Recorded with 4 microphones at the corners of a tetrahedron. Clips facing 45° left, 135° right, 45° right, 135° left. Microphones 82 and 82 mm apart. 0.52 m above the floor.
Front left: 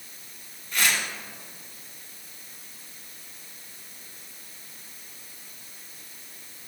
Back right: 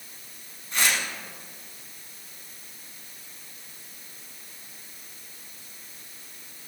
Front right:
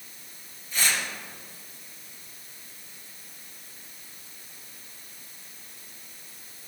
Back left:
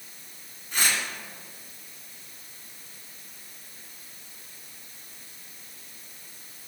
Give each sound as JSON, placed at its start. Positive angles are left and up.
{"t": 0.7, "sound": "tearing paper", "azimuth_deg": 165, "distance_m": 2.0}